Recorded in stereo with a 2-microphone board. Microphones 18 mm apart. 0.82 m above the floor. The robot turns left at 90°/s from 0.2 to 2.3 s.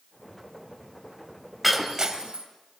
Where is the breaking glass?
5° right (ahead or behind), 2.5 m; by 2.5 s 65° right (ahead or behind), 2.5 m.